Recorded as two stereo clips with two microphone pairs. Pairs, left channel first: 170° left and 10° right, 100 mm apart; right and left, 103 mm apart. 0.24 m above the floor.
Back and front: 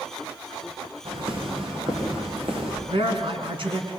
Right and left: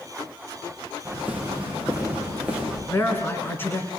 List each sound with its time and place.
1.1 s footsteps: 15° left, 8 m
2.9 s a man speaking: 25° right, 3.5 m